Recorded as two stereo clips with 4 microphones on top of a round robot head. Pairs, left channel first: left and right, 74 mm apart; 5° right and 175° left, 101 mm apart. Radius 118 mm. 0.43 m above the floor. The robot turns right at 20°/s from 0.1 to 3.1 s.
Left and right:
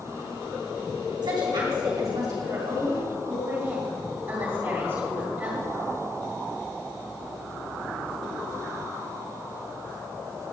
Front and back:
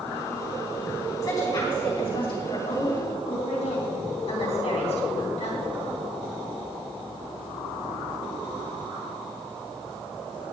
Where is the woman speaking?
65° right, 3.5 m; by 5.6 s 25° right, 3.5 m.